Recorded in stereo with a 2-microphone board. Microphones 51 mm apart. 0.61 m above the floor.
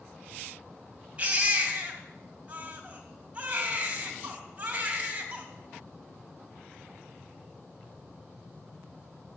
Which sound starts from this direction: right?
A baby crying, at 1.2 s.